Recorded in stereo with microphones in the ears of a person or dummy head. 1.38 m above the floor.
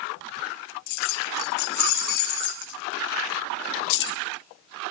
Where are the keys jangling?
45° left (ahead or behind), 1.8 m; by 4.2 s 55° left (ahead or behind), 0.6 m.